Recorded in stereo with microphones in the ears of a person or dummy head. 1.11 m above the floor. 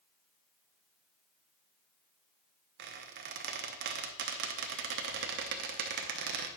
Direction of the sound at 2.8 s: 65° right (ahead or behind).